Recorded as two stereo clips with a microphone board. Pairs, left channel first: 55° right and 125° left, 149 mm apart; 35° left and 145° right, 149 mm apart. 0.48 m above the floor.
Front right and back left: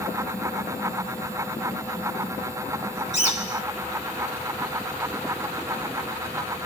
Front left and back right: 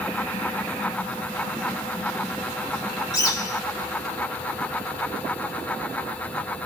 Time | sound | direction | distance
3.1 | a bird | 25° right | 0.9 m